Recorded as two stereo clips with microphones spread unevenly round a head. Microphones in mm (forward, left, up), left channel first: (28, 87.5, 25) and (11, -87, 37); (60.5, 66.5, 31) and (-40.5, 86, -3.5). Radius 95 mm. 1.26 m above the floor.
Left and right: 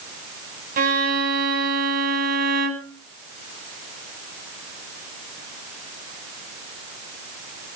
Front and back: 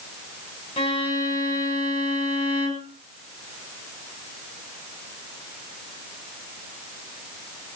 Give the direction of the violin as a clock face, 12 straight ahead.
2 o'clock.